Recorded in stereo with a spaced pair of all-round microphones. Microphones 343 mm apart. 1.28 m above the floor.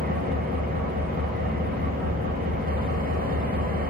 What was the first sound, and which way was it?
An engine running, 25° right (ahead or behind).